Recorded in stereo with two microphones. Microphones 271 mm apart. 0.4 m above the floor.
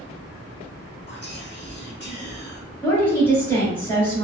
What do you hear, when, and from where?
1.1 s whispering: 40° left (ahead or behind), 1.0 m
2.8 s a woman speaking: 10° left (ahead or behind), 1.1 m